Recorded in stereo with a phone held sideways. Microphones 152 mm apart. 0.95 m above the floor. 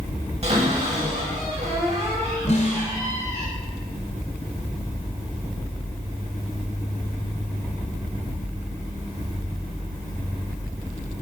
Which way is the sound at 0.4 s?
45° right (ahead or behind).